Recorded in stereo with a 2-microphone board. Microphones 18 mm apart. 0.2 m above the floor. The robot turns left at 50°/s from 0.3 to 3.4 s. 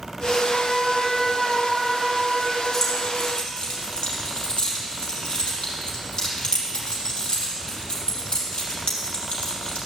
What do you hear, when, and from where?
0.5 s a trumpet: 30° left, 1.2 m; by 2.6 s 75° right, 1.2 m
2.7 s keys jangling: 30° left (ahead or behind), 4 m; by 9.8 s 60° left (ahead or behind), 4 m